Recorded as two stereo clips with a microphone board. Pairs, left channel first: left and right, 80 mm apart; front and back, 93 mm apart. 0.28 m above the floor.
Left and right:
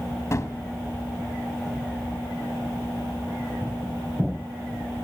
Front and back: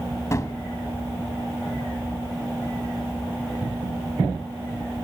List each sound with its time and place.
0.3 s a gunshot: 45° left, 1.1 m